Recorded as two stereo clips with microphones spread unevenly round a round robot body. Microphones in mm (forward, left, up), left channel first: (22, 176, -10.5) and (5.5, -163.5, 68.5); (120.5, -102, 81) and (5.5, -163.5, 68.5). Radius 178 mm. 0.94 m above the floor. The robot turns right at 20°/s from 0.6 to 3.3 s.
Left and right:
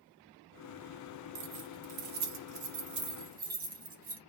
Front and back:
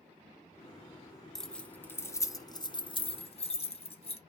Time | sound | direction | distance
1.4 | keys jangling | 60° right | 0.7 m